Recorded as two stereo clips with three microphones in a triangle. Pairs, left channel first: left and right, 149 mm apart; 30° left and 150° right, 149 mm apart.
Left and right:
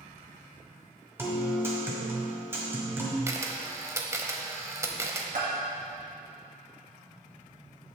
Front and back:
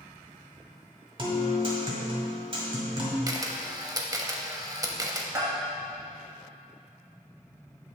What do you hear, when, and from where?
1.2 s a guitar: 155° right, 1.4 m
3.3 s a camera shutter: 130° right, 0.6 m
5.3 s a bell: 80° right, 1.7 m